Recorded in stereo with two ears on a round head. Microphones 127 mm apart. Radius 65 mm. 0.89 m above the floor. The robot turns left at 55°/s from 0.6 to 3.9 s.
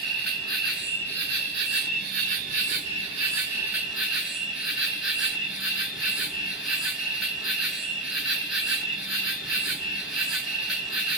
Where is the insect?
5° left, 1.1 m; by 11.2 s 175° right, 1.1 m.